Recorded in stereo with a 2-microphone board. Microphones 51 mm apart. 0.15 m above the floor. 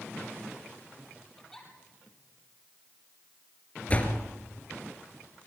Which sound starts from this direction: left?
A door slam, at 3.9 s.